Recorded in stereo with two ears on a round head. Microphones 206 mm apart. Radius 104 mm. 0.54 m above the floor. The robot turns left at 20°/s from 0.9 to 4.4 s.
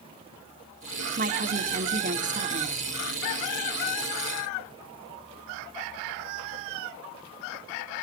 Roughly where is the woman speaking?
Right.